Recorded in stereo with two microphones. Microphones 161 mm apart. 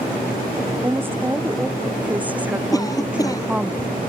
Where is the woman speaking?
15° right (ahead or behind); by 3.7 s 5° right (ahead or behind).